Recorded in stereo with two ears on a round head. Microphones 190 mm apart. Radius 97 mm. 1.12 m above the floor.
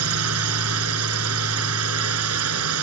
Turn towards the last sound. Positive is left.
turn(degrees=-85)